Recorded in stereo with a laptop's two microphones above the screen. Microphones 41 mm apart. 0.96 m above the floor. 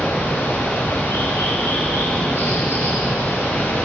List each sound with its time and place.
0.0 s running water: 80° left, 4.5 m